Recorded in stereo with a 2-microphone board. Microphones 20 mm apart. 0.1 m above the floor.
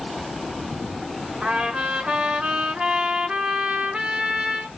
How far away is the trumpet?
About 5 m.